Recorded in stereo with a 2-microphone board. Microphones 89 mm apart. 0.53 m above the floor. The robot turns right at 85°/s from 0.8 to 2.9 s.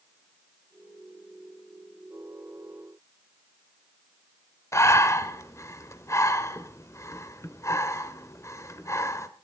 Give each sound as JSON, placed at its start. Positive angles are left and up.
{"t": 4.7, "sound": "breathing", "side_deg": 35, "distance_m": 1.4}